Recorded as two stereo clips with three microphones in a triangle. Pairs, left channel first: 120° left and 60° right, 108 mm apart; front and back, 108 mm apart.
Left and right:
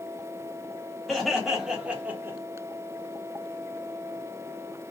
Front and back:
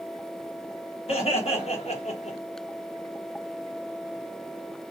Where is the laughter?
30° left, 1.6 m; by 2.4 s 5° left, 0.7 m.